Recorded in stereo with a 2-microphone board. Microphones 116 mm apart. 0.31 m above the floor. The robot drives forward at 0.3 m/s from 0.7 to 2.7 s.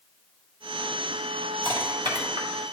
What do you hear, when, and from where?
1.6 s crushing: 50° right (ahead or behind), 2.5 m; by 2.5 s 55° right (ahead or behind), 2.5 m